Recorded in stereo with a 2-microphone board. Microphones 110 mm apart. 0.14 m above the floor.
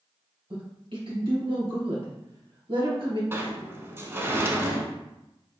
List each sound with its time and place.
0.5 s a woman speaking: 55° right (ahead or behind), 2.5 m
3.3 s a sliding door: 25° right (ahead or behind), 0.8 m